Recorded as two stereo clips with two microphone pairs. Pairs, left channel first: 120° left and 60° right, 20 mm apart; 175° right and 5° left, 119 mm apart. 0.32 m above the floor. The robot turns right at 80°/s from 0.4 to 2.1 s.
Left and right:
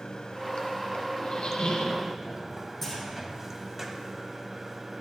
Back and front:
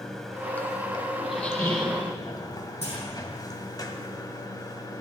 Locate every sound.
0.0 s running water: 100° left, 1.3 m; by 5.0 s 125° right, 1.3 m
1.2 s a squeak: 90° left, 2.5 m; by 2.0 s 160° left, 2.5 m
2.8 s a clunk: 150° right, 5 m